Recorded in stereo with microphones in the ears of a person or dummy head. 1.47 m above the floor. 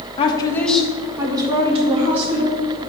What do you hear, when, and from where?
0.2 s a woman speaking: 30° left (ahead or behind), 1.1 m; by 2.8 s 50° right (ahead or behind), 2.5 m